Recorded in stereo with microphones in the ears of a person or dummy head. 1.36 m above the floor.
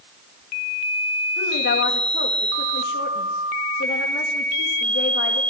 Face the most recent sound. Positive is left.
turn(degrees=55)  # may be behind; listen again after turning